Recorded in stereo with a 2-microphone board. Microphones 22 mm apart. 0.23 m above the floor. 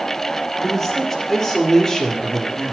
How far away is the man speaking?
About 4 m.